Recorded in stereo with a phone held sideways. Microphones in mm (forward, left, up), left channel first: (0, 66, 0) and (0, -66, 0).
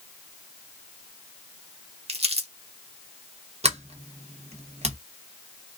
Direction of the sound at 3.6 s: 55° right (ahead or behind).